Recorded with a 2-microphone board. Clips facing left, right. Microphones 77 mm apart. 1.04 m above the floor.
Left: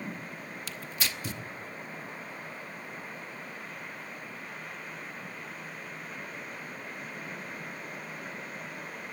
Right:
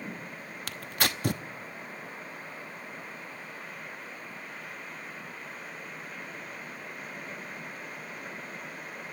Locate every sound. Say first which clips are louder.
0.7 s tearing paper: right 7 dB; 60° right (ahead or behind), 0.9 m